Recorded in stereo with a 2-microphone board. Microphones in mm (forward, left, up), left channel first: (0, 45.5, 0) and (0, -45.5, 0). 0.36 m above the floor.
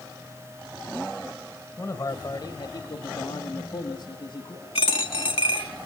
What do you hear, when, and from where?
1.8 s a man speaking: 30° left (ahead or behind), 1.7 m; by 4.7 s 60° left (ahead or behind), 3 m
4.8 s a dropped coin: 80° left, 1.6 m